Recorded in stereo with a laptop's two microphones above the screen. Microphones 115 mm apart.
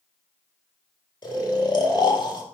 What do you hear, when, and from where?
1.2 s snoring: 40° left (ahead or behind), 1.9 m